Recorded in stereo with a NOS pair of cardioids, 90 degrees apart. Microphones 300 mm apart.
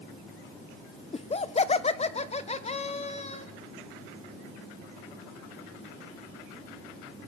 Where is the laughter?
20° left, 1.2 m; by 3.5 s 25° left, 2.5 m.